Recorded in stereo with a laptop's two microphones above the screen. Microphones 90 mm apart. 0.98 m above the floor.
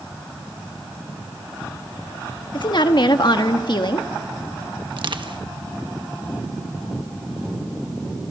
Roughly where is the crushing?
Right.